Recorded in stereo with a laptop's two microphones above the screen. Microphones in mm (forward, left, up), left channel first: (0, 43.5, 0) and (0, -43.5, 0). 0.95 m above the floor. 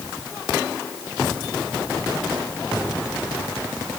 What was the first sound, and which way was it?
Only background noise.